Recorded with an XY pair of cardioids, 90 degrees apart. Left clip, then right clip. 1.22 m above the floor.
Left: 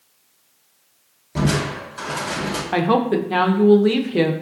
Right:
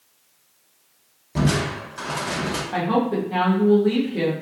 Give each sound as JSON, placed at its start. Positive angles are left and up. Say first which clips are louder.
{"t": 1.4, "sound": "crushing", "louder": "left 1 dB", "azimuth_deg": 0, "distance_m": 0.9}
{"t": 2.7, "sound": "a woman speaking", "louder": "left 5 dB", "azimuth_deg": 65, "distance_m": 0.6}